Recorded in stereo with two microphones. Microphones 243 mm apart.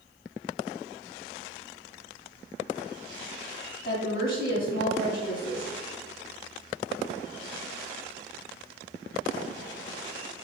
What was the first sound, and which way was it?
A woman speaking, 50° left (ahead or behind).